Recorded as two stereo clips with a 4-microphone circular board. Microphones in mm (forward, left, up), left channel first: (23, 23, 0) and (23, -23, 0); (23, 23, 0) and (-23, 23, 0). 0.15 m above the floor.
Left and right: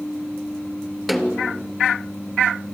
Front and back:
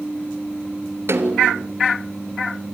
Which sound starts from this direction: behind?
A snare drum, at 1.1 s.